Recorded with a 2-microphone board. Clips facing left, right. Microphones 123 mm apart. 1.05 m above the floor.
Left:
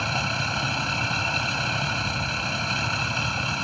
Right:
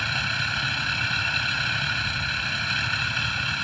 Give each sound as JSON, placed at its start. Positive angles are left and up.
{"t": 0.0, "sound": "a vehicle", "side_deg": 35}